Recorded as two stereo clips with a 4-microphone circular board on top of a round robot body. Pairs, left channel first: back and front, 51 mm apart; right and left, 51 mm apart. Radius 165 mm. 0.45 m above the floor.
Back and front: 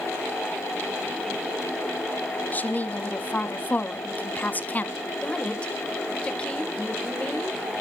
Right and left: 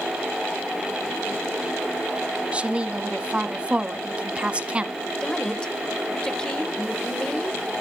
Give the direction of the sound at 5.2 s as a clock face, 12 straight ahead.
5 o'clock.